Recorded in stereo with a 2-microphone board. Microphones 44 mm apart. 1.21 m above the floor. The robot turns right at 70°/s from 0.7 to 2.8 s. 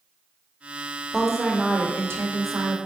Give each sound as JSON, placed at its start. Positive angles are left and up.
{"t": 1.1, "sound": "a woman speaking", "azimuth_deg": 180, "distance_m": 0.7}